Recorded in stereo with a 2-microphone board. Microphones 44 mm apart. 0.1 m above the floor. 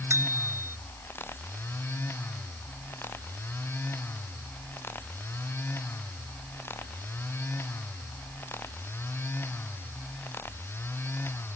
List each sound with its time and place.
0.1 s a bicycle bell: 75° right (ahead or behind)